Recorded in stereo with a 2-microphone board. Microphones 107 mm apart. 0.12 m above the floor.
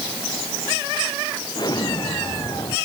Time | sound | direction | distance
1.6 | an explosion | 45° left (ahead or behind) | ?